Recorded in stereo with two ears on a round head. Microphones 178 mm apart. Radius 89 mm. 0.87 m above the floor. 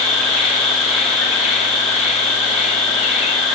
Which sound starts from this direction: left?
An insect, at 0.0 s.